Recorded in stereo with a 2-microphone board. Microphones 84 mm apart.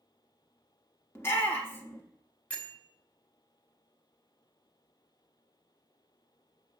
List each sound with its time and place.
1.1 s a shout: 30° left (ahead or behind), 1.4 m
2.5 s a bell: 15° left (ahead or behind), 1.1 m